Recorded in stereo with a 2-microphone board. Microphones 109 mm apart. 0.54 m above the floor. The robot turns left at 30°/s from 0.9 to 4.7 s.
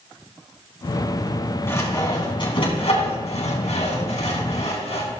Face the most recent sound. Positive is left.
turn(degrees=65)  # may be behind; listen again after turning